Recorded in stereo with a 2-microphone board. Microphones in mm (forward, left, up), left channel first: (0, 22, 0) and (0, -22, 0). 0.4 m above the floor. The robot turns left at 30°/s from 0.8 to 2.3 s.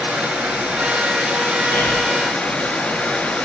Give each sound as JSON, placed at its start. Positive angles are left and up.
{"t": 0.0, "sound": "running water", "azimuth_deg": -155, "distance_m": 3.5}
{"t": 1.7, "sound": "breathing", "side_deg": 60, "distance_m": 1.5}